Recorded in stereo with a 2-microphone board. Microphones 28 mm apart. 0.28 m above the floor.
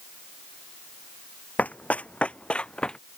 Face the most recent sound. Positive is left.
turn(degrees=35)  # may be behind; listen again after turning